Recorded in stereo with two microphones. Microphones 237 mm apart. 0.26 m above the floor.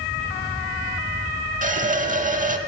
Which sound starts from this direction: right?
A running tap, at 1.6 s.